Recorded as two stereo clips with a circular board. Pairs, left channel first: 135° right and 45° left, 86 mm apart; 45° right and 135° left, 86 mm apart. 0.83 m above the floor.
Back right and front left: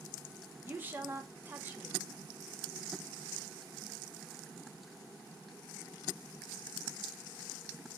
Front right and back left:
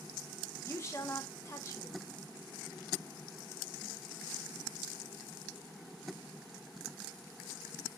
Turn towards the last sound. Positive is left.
turn(degrees=-10)